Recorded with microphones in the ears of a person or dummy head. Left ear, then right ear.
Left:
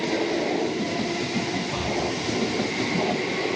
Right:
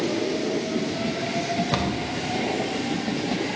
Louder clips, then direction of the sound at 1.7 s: Even; 65° right (ahead or behind).